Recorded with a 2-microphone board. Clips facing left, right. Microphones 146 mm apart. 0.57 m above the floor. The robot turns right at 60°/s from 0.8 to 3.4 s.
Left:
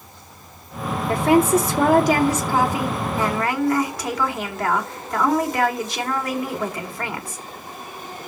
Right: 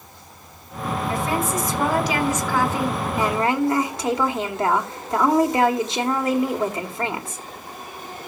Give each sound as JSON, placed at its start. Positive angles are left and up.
{"t": 1.1, "sound": "a woman speaking", "azimuth_deg": 65, "distance_m": 2.0}